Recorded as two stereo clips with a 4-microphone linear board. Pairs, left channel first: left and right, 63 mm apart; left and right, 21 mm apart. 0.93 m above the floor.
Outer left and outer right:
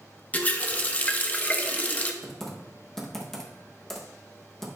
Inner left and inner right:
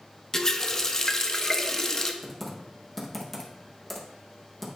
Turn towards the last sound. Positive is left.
turn(degrees=5)  # may be behind; listen again after turning